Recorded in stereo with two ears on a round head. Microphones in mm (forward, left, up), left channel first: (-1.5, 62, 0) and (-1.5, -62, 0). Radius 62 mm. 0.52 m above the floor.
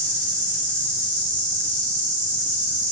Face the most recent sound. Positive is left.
turn(degrees=-60)  # may be behind; listen again after turning